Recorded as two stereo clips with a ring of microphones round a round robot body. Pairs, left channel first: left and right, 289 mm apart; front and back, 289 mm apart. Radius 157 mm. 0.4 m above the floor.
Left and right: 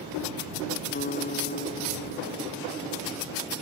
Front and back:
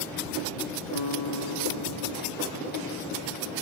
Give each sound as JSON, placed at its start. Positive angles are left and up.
{"t": 0.9, "sound": "a guitar", "azimuth_deg": 30}